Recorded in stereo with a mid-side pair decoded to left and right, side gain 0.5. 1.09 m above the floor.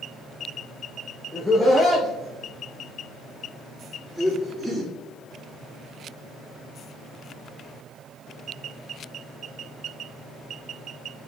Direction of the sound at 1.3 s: 20° left.